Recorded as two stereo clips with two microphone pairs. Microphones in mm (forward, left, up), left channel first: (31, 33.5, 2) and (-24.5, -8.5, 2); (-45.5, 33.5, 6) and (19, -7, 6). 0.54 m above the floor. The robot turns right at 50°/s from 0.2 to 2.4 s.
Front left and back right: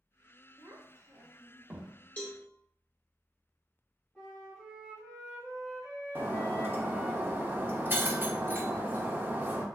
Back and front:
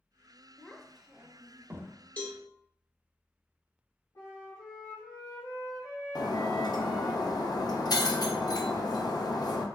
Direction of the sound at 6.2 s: 160° left.